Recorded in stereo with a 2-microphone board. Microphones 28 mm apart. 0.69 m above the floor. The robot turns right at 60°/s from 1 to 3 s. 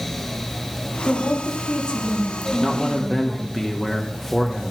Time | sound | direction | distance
1.1 | a woman speaking | 85° left | 1.9 m
2.6 | a man speaking | 10° right (ahead or behind) | 0.9 m